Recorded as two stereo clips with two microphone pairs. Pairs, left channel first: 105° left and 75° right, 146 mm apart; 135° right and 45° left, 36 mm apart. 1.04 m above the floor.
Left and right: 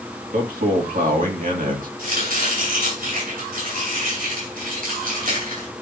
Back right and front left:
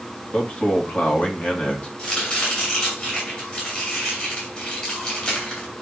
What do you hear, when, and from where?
0.3 s a man speaking: 90° right, 2.5 m
2.0 s chopping: 80° right, 9 m